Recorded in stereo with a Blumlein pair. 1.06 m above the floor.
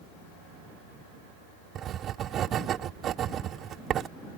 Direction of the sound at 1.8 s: 30° right.